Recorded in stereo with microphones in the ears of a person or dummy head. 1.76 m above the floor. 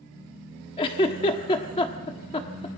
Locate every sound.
0.8 s a giggle: 30° left (ahead or behind), 1.4 m